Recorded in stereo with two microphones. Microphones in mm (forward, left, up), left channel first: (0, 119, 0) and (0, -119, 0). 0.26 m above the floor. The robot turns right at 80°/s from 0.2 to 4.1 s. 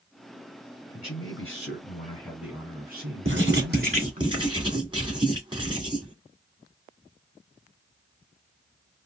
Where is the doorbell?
I don't hear a doorbell.